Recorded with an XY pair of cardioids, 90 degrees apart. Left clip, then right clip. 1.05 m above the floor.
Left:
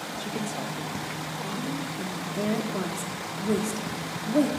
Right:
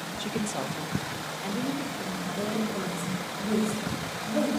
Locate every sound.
0.2 s a woman speaking: 25° right, 0.8 m
2.0 s a woman speaking: 60° left, 2.5 m